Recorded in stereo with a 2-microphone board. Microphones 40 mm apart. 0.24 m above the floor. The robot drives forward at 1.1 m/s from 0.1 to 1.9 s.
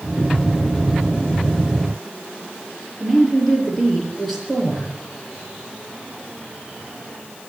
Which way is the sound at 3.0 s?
5° right (ahead or behind).